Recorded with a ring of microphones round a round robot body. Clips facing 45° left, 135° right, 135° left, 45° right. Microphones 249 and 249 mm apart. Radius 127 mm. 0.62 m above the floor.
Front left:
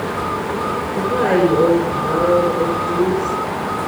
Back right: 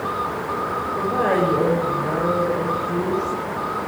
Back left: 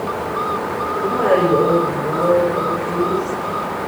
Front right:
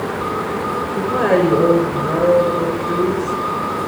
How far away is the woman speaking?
About 10 m.